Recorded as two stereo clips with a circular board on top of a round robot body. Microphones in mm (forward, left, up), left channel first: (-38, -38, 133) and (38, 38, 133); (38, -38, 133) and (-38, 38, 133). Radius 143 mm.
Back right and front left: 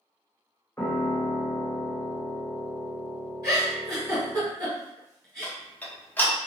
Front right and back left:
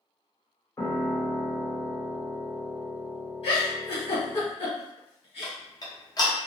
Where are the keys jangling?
No keys jangling in this recording.